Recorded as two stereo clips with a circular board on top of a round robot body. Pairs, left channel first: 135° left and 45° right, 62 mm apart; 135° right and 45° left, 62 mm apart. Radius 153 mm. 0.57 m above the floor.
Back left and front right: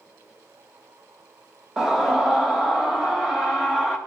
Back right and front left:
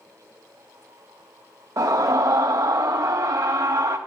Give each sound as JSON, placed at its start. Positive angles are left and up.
{"t": 1.8, "sound": "a scream", "azimuth_deg": 35, "distance_m": 1.6}